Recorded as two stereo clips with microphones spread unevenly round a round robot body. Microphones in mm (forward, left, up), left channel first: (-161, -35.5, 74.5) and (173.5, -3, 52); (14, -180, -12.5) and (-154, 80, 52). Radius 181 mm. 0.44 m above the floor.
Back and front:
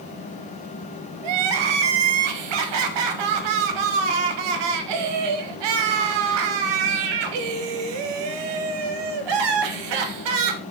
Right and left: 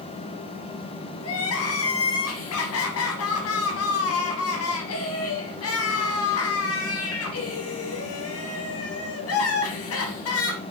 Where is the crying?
5° right, 1.0 m.